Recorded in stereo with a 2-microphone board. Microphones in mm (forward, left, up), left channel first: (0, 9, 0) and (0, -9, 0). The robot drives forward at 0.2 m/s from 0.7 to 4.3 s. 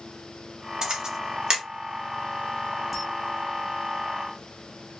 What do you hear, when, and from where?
0.8 s a camera shutter: 40° right (ahead or behind), 1.3 m; by 1.6 s 35° right (ahead or behind), 1.4 m
2.9 s a camera shutter: 10° right (ahead or behind), 0.9 m